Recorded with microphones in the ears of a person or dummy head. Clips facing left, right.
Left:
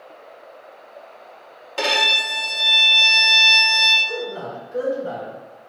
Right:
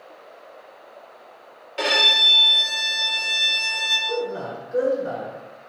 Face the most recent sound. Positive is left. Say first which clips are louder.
# right 4 dB
turn(degrees=-50)  # may be behind; listen again after turning